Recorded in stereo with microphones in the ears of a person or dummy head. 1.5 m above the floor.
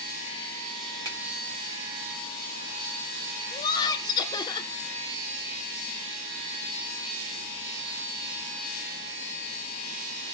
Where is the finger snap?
25° right (ahead or behind), 1.5 m.